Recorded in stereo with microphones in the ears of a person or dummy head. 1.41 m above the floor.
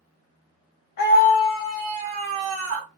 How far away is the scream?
About 0.8 m.